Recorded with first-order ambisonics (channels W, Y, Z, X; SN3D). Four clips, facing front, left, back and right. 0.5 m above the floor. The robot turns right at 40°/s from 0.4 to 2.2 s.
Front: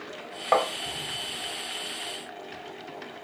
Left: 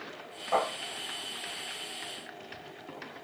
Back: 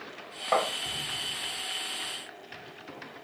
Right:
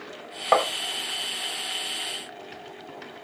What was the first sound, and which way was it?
Tapping, 70° right.